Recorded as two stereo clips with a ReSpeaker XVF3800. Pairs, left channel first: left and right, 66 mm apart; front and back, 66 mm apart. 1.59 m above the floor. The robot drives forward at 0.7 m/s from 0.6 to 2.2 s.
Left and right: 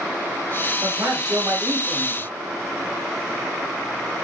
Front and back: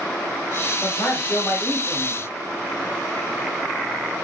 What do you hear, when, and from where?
0.8 s a man speaking: 55° right, 4 m; by 2.2 s 65° right, 3.5 m